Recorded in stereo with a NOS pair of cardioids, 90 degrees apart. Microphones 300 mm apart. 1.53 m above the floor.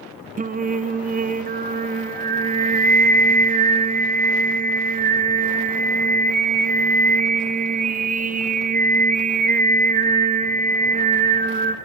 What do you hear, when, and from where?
0.4 s singing: 25° right, 0.9 m